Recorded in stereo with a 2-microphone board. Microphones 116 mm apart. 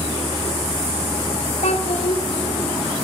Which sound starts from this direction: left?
A child speaking, at 1.6 s.